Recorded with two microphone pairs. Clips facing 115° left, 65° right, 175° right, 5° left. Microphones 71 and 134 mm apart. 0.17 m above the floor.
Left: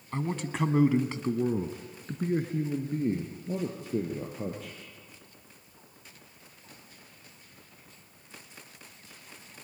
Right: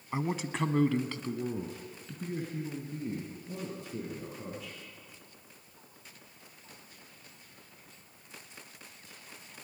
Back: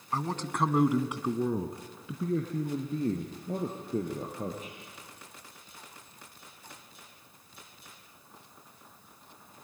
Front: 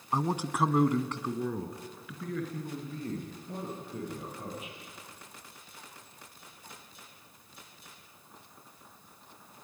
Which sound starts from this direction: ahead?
A man speaking, at 0.1 s.